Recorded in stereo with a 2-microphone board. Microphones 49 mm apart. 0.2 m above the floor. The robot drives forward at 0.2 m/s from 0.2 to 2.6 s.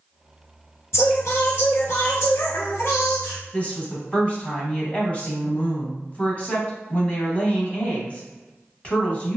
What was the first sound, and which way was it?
Singing, 70° left (ahead or behind).